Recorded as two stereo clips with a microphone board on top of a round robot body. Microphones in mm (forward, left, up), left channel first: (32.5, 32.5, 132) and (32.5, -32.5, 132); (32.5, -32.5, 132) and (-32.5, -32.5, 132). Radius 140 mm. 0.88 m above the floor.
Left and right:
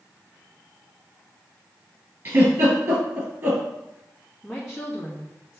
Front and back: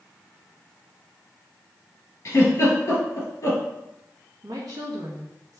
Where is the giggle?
50° right, 2.5 m.